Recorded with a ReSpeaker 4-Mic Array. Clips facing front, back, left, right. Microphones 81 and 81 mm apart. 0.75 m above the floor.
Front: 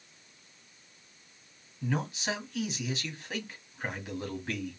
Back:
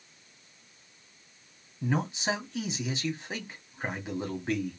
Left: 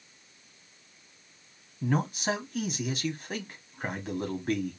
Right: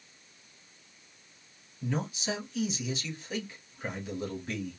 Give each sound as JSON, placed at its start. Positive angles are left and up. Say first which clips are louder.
{"t": 1.8, "sound": "a man speaking", "louder": "back 3 dB, left 5 dB", "azimuth_deg": 120, "distance_m": 1.6}